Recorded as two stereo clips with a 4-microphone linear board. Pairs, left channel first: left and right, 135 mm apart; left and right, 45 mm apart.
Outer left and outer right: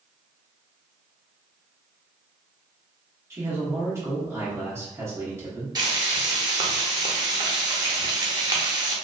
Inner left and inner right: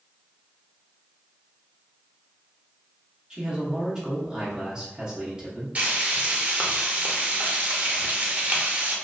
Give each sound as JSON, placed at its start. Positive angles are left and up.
{"t": 3.3, "sound": "a man speaking", "side_deg": -20, "distance_m": 0.8}
{"t": 5.8, "sound": "frying", "side_deg": -30, "distance_m": 0.6}